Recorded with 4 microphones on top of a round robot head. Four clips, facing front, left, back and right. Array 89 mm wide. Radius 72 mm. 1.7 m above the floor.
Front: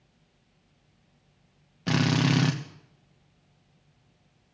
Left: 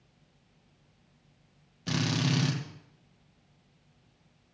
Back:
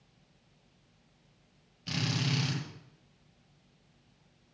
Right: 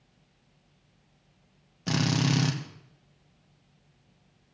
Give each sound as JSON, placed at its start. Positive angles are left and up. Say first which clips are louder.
{"t": 1.9, "sound": "a drill", "louder": "right 3 dB, front 10 dB", "azimuth_deg": -20, "distance_m": 1.6}